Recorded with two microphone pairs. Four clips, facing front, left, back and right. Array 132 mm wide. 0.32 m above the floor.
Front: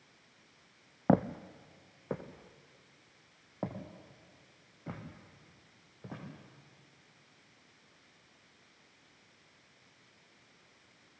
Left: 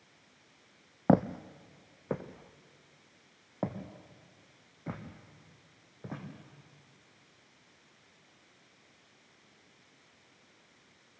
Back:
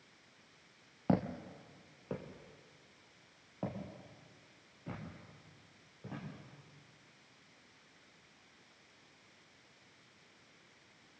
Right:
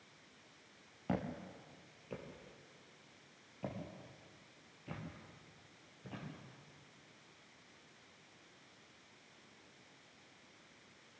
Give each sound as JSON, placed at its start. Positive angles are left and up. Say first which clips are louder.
{"t": 1.1, "sound": "footsteps", "louder": "left 14 dB, front 6 dB", "azimuth_deg": 60, "distance_m": 0.7}